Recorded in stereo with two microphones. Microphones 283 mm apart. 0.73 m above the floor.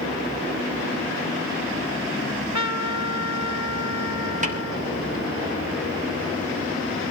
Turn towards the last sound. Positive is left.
turn(degrees=-25)  # may be behind; listen again after turning